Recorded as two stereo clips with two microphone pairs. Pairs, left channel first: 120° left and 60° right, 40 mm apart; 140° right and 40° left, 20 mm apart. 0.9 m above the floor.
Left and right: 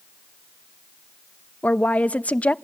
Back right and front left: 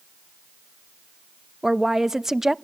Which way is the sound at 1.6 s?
100° left.